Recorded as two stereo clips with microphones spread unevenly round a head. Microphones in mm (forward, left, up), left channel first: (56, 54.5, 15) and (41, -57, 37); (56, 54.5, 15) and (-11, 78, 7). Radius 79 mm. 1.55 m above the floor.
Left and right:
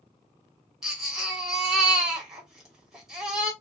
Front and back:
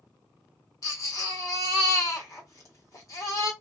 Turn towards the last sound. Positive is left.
turn(degrees=-20)